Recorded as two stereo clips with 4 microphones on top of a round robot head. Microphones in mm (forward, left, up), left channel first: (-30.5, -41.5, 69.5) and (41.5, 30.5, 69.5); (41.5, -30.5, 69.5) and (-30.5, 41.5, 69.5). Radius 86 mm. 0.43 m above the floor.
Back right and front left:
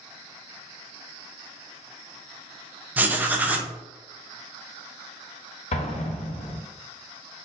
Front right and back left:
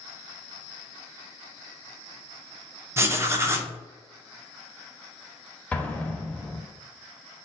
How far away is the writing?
About 0.7 m.